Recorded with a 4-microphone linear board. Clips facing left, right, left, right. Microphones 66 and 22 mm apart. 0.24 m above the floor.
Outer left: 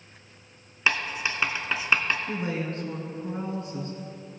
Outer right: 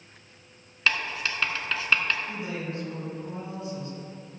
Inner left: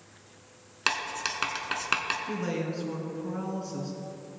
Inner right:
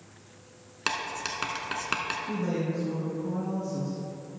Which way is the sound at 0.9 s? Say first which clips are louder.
Outer left 1 dB, inner left 2 dB; 15° left (ahead or behind).